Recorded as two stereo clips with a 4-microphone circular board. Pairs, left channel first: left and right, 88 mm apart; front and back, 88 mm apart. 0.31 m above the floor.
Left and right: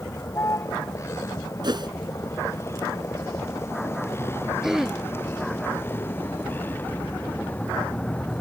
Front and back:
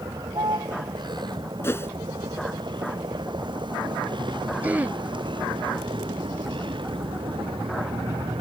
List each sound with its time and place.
0.0 s a vehicle: 145° left; by 8.4 s 160° left
1.6 s a whoosh: 60° right
4.6 s throat clearing: 165° right